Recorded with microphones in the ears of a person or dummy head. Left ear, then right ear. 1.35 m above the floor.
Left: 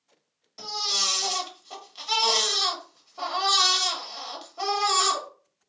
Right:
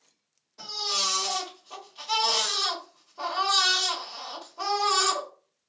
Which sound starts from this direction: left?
A baby crying, at 0.6 s.